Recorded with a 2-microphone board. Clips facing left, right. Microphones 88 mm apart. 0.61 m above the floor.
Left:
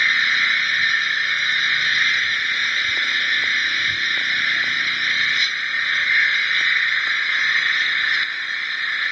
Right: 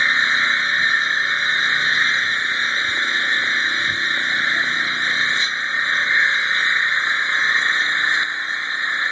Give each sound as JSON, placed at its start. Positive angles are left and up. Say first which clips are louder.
{"t": 0.0, "sound": "an engine running", "louder": "right 2 dB", "side_deg": -30}